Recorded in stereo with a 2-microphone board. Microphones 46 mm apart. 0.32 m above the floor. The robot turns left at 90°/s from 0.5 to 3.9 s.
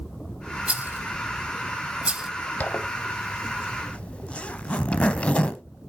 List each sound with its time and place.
0.7 s a rattle: 25° right (ahead or behind), 0.9 m; by 2.3 s 5° right (ahead or behind), 0.9 m
2.6 s a zipper: 35° left (ahead or behind), 0.8 m; by 5.6 s 25° left (ahead or behind), 0.8 m